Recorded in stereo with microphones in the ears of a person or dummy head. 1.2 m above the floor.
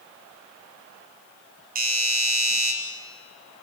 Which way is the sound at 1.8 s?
40° right (ahead or behind).